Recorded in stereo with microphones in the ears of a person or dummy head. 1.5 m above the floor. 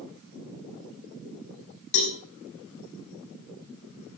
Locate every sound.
1.9 s a cowbell: 60° left (ahead or behind), 5 m